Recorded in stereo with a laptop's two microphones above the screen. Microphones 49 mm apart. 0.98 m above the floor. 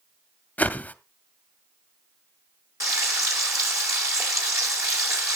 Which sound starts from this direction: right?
Frying, at 2.8 s.